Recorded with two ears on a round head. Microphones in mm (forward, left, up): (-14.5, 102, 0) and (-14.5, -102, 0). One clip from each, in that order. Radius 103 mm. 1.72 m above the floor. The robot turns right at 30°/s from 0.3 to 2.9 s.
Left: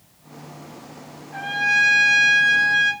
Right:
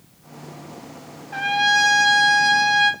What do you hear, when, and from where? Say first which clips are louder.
1.3 s a trumpet: right 2 dB; 100° right, 1.5 m; by 2.9 s 55° right, 1.5 m